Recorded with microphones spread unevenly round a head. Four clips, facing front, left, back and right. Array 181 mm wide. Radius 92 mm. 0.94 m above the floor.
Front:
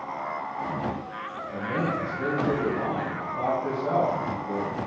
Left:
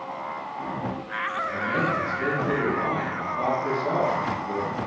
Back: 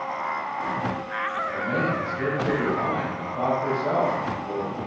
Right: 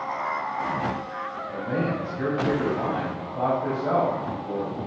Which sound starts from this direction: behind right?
A man speaking, at 1.5 s.